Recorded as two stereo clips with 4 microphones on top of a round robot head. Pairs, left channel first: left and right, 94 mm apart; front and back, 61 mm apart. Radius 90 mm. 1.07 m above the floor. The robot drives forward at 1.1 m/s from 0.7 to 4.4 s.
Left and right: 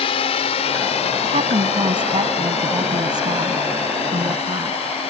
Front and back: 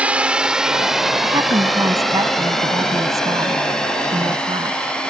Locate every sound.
0.0 s a drone: 115° left; by 5.1 s 75° left
1.2 s a woman speaking: 135° right; by 4.8 s 145° right